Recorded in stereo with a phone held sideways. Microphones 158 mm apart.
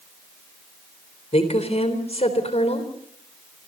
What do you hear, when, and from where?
1.3 s a woman speaking: 40° left (ahead or behind), 3.5 m